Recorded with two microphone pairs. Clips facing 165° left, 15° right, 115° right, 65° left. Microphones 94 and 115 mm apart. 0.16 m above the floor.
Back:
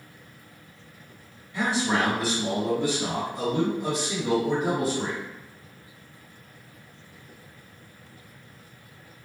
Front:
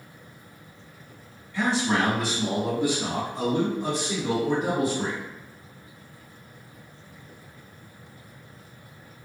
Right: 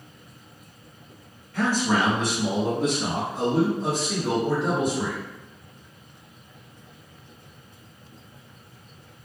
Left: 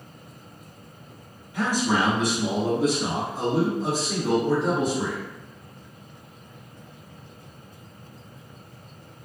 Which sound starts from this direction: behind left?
A man speaking, at 1.5 s.